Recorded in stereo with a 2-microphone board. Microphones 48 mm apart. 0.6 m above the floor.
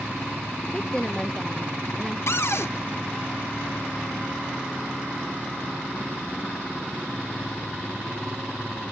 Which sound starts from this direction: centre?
A woman speaking, at 0.7 s.